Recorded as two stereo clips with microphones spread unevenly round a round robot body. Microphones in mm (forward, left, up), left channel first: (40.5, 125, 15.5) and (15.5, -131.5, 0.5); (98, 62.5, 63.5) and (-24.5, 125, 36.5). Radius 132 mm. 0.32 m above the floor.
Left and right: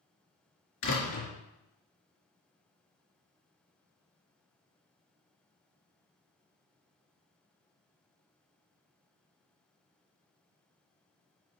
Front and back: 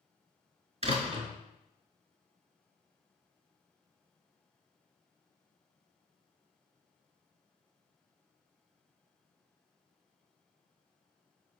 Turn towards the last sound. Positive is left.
turn(degrees=115)